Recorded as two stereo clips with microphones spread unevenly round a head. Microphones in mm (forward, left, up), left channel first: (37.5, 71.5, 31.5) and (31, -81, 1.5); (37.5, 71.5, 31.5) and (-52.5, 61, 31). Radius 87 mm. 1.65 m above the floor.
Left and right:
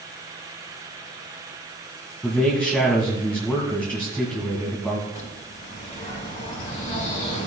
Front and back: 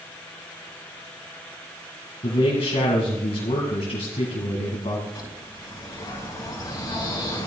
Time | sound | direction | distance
2.2 | a man speaking | 5° left | 2 m
5.2 | a bird | 45° left | 4 m